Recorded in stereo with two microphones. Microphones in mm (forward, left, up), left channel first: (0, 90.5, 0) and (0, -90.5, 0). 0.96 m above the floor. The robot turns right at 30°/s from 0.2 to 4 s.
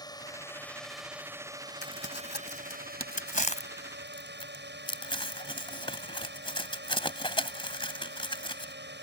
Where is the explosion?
No explosion in this recording.